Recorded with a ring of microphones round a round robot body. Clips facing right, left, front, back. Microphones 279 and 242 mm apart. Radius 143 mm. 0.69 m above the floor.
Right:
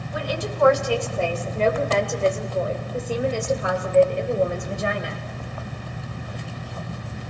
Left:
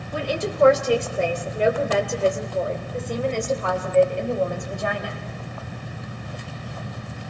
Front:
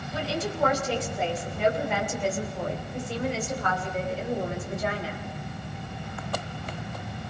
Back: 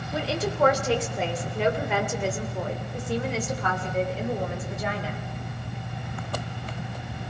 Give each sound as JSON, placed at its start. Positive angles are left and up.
{"t": 0.1, "sound": "a woman speaking", "azimuth_deg": 150, "distance_m": 2.5}